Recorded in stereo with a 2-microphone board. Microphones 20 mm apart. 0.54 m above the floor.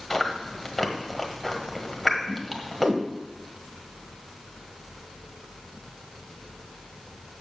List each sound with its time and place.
0.1 s chewing: 10° left (ahead or behind), 1.5 m
2.3 s a whoosh: 60° right (ahead or behind), 1.2 m